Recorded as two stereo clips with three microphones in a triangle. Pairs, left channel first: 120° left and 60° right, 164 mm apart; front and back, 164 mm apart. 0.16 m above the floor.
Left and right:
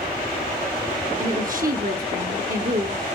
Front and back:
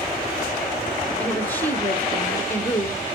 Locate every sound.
1.2 s a woman speaking: 75° right, 2 m